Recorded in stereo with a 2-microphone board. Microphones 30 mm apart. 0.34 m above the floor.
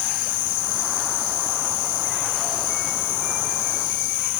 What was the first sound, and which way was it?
Only background noise.